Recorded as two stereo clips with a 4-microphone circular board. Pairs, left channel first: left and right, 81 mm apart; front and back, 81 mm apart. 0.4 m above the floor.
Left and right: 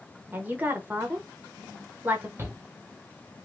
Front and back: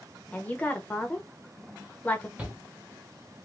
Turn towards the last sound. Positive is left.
turn(degrees=-115)